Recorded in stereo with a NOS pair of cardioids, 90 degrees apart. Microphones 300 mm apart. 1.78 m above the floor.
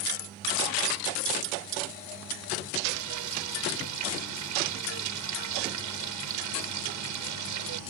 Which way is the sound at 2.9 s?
70° right.